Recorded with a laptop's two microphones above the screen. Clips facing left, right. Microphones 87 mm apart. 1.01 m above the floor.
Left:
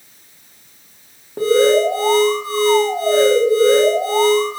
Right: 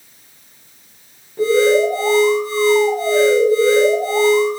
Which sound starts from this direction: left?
An alarm, at 1.4 s.